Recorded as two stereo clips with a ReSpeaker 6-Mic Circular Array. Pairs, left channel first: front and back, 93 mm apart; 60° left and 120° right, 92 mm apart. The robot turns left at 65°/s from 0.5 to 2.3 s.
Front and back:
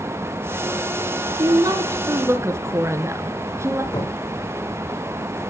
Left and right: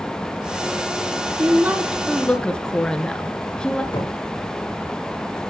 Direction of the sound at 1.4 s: 165° right.